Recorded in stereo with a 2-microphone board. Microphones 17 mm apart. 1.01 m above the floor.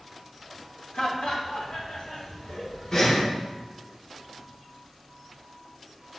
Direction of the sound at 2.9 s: 35° left (ahead or behind).